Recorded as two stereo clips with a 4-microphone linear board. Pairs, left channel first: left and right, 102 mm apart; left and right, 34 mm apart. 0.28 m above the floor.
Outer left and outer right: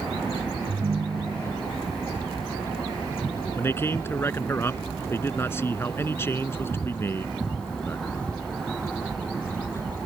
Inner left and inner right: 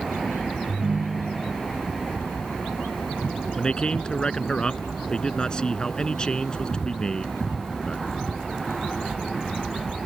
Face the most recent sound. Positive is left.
turn(degrees=25)  # may be behind; listen again after turning